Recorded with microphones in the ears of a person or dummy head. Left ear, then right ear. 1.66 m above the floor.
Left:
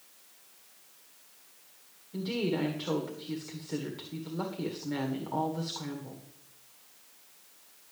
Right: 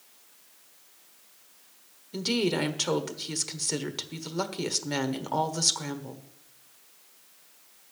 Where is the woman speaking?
85° right, 1.4 m.